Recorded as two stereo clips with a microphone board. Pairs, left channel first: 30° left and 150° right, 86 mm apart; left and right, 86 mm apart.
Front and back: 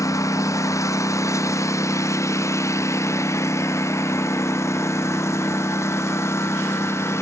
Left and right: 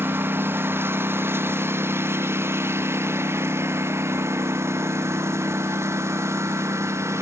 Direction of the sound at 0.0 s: 25° right.